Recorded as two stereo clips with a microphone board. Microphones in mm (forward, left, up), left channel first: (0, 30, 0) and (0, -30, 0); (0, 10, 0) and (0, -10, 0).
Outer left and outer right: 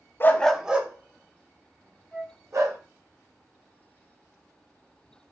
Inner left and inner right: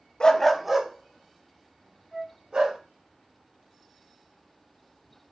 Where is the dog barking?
40° left (ahead or behind), 0.6 m; by 2.8 s 55° right (ahead or behind), 2.5 m.